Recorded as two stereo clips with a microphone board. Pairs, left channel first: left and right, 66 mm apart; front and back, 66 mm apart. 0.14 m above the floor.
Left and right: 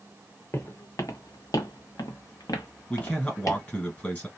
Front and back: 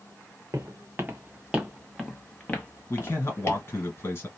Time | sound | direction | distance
0.5 | footsteps | 140° left | 0.9 m
2.9 | a man speaking | 30° left | 2 m